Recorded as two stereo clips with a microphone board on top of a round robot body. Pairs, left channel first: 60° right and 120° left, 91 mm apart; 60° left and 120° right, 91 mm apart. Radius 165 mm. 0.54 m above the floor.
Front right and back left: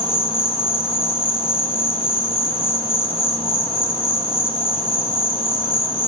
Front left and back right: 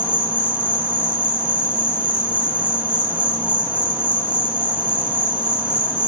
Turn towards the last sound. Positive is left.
turn(degrees=-45)